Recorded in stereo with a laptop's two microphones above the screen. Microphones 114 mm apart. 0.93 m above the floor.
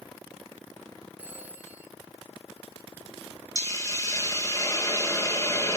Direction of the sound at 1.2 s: 15° right (ahead or behind).